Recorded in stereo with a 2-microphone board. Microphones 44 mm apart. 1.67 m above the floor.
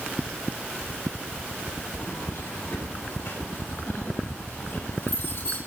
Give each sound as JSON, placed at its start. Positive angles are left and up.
{"t": 2.0, "sound": "keys jangling", "side_deg": 85, "distance_m": 9.5}